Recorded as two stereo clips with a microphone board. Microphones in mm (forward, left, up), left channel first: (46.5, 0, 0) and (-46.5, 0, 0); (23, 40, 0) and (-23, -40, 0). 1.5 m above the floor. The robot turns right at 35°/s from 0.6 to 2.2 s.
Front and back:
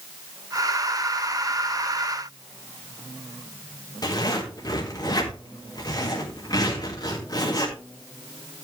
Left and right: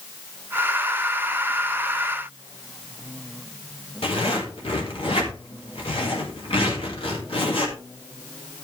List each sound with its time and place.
4.0 s a zipper: 45° left, 4 m